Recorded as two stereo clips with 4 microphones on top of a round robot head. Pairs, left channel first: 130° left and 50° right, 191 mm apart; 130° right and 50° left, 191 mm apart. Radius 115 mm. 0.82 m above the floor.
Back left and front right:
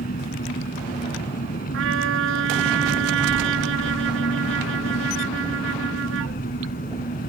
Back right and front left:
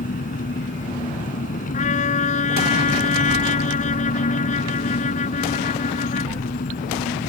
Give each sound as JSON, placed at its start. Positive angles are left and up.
{"t": 0.0, "sound": "an engine running", "azimuth_deg": 180}
{"t": 1.7, "sound": "a trumpet", "azimuth_deg": -75}